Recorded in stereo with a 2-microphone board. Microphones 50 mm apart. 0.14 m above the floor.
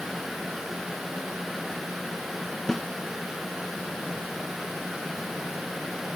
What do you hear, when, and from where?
2.7 s a snare drum: 5° left (ahead or behind), 0.7 m